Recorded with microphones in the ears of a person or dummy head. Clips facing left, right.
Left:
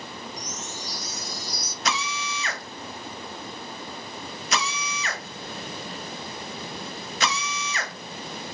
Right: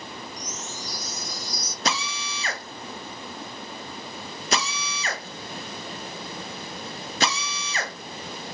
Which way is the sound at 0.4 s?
65° right (ahead or behind).